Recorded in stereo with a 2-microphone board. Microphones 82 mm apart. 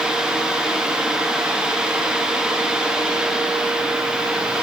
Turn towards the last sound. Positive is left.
No sound to turn to.